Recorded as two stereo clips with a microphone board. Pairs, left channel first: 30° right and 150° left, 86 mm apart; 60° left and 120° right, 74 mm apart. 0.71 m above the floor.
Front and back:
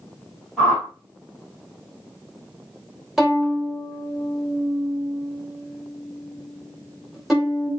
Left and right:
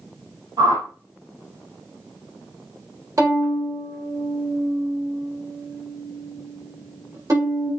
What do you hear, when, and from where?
0.6 s a whoosh: 120° right, 2.5 m
3.2 s a violin: 120° right, 1.7 m